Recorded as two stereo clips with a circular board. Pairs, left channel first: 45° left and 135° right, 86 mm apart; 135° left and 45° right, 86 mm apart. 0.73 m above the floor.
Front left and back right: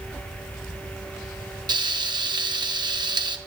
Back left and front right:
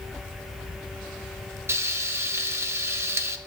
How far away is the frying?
About 0.5 m.